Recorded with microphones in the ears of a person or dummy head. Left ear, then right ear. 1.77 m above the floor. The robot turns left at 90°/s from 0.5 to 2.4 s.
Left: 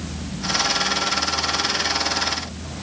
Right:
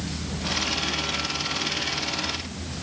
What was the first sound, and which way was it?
Only background noise.